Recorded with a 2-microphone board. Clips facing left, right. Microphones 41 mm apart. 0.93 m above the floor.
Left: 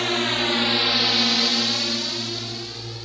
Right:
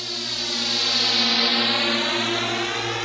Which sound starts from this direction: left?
A drone, at 0.0 s.